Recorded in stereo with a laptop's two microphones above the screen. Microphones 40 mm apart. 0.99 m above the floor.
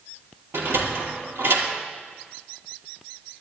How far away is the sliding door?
About 4.5 m.